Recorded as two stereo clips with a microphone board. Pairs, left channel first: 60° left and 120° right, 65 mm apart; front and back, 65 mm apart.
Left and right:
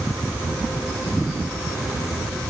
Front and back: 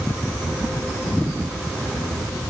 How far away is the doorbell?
I don't hear a doorbell.